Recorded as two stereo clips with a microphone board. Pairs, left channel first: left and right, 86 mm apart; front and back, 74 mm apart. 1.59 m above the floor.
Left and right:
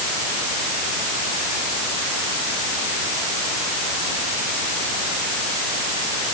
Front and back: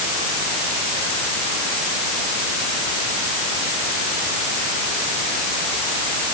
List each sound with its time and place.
Only background noise.